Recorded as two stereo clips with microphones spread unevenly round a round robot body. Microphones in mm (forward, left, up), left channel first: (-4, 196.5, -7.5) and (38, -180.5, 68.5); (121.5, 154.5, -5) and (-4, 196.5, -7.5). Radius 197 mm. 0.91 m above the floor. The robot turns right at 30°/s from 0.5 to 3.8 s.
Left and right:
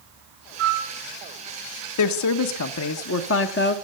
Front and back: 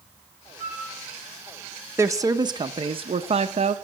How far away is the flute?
About 3.5 m.